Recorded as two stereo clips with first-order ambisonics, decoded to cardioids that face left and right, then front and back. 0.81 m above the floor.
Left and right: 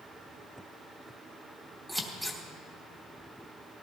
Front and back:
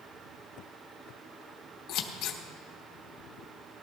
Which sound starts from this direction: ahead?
Scissors, at 1.9 s.